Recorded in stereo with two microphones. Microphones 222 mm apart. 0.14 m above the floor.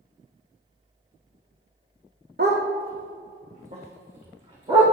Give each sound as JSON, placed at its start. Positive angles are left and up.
{"t": 2.4, "sound": "a dog barking", "side_deg": -50, "distance_m": 2.0}